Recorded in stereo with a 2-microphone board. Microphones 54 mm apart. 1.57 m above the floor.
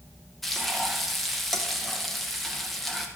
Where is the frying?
5° left (ahead or behind), 2 m.